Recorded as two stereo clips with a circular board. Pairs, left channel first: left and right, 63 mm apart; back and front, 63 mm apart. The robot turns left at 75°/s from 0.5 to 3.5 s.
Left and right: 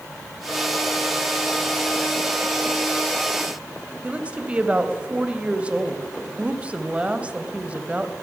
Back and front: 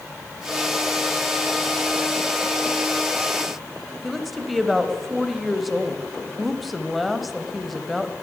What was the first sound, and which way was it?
A woman speaking, 90° right.